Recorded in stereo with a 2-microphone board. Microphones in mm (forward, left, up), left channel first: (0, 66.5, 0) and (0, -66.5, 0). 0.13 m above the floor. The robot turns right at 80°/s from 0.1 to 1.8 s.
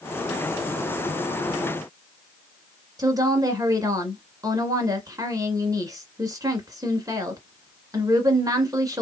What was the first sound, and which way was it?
A woman speaking, 25° right (ahead or behind).